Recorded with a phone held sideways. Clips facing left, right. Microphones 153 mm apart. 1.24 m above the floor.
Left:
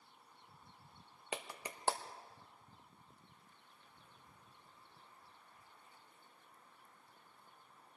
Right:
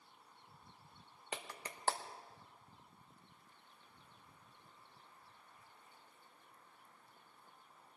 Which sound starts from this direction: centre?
A clap, at 1.3 s.